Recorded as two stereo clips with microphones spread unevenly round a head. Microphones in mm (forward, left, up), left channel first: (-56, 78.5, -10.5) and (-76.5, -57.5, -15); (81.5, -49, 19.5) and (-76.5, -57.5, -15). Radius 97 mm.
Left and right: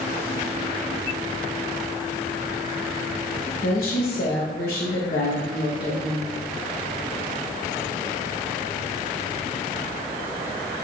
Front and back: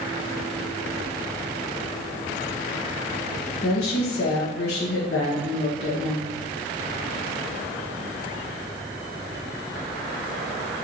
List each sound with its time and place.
3.6 s a woman speaking: 50° left, 1.2 m